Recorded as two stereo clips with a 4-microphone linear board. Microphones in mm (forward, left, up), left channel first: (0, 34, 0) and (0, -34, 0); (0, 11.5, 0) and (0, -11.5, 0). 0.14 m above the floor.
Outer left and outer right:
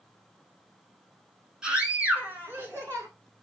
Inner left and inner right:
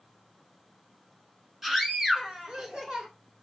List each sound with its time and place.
1.6 s a scream: 10° right (ahead or behind), 1.2 m; by 3.1 s 40° right (ahead or behind), 1.5 m